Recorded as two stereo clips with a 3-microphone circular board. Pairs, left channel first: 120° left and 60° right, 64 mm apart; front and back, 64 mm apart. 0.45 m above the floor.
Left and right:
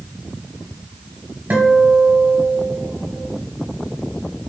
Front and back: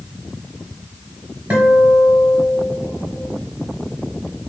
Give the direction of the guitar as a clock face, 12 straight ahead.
4 o'clock.